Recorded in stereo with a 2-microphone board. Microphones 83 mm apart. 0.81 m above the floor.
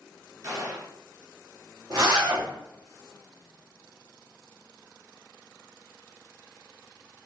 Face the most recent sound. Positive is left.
turn(degrees=-50)  # may be behind; listen again after turning